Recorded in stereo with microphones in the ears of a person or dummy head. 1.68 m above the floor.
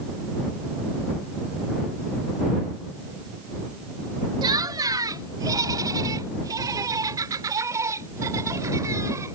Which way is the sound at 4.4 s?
20° right (ahead or behind).